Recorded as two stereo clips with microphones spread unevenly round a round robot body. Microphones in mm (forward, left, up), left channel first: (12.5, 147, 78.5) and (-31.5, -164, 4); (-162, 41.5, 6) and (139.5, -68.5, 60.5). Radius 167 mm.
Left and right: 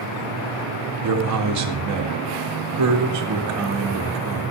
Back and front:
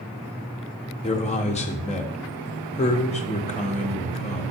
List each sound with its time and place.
1.0 s a man speaking: 130° right, 1.9 m